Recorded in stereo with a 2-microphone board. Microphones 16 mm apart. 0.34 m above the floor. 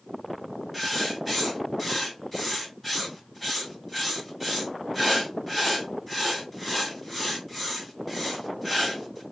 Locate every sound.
0.7 s writing: 15° left (ahead or behind), 1.9 m